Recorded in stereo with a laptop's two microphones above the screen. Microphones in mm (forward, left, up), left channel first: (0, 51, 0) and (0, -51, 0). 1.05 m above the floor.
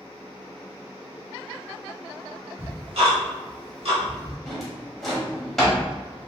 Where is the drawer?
Centre (ahead or behind), 1.5 m.